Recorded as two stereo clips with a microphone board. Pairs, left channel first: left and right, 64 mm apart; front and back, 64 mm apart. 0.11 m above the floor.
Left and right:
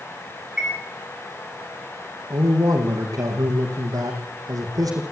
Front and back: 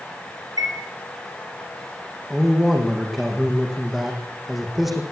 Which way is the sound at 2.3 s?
95° right.